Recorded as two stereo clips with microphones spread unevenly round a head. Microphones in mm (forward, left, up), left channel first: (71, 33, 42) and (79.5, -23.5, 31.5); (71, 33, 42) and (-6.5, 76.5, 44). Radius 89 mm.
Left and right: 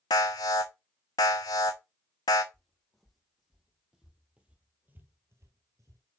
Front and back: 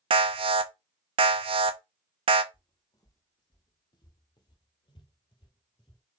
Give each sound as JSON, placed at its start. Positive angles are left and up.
{"t": 0.1, "sound": "an alarm", "azimuth_deg": 135, "distance_m": 0.7}
{"t": 2.5, "sound": "footsteps", "azimuth_deg": 15, "distance_m": 3.5}